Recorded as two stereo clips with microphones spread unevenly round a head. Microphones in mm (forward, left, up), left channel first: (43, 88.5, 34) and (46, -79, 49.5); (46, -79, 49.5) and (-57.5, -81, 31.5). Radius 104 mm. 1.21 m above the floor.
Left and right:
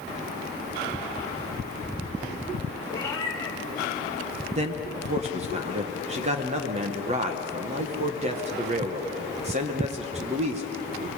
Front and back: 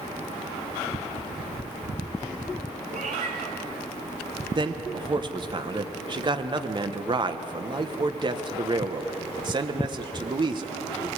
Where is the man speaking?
145° right, 1.2 m.